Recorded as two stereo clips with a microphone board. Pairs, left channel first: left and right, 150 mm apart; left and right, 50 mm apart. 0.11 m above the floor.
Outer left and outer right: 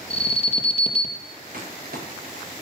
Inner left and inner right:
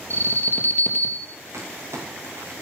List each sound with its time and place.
0.1 s an alarm: 40° left (ahead or behind), 3 m
1.5 s crumpling: 85° right, 6.5 m